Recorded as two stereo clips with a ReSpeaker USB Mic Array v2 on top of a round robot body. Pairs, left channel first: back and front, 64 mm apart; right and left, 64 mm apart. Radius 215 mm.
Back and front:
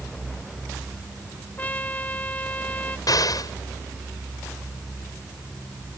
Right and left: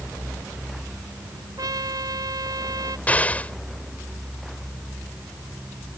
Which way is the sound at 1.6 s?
115° left.